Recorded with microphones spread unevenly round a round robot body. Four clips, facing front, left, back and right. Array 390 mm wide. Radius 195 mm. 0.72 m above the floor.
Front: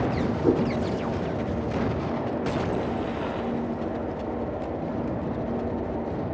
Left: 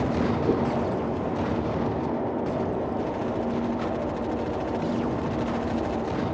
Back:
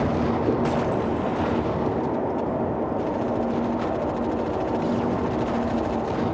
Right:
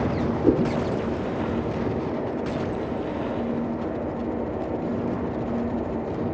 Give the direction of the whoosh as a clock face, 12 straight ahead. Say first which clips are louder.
Right 8 dB, even; 3 o'clock.